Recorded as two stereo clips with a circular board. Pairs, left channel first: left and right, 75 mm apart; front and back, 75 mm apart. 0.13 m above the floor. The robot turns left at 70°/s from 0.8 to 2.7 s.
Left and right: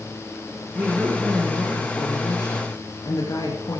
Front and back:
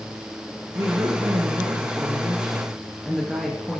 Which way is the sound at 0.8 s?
145° right.